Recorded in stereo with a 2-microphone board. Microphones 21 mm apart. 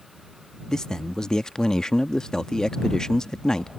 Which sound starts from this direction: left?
A man speaking, at 0.7 s.